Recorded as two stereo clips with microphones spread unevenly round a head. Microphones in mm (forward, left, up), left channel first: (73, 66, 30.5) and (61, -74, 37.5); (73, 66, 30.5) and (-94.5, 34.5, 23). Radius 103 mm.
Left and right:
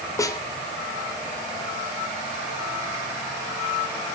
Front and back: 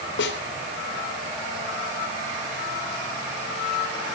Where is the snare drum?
20° left, 3.5 m.